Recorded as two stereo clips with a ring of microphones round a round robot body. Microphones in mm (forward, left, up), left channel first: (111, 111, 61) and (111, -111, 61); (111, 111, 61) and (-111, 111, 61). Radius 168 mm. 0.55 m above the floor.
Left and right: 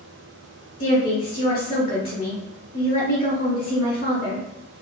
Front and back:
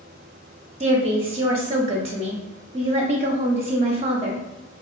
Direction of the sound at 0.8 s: 125° left.